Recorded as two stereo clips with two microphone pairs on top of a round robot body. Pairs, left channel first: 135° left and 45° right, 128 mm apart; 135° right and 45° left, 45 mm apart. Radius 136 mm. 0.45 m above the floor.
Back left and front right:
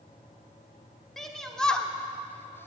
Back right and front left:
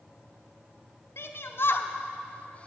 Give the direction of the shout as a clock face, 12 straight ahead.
5 o'clock.